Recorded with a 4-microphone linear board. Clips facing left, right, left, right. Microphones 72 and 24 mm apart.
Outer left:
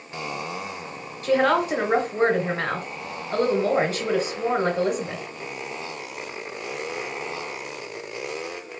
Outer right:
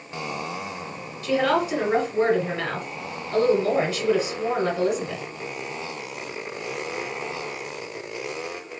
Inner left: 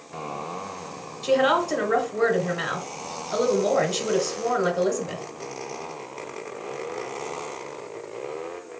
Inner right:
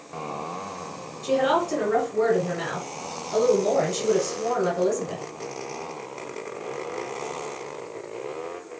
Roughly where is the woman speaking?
Left.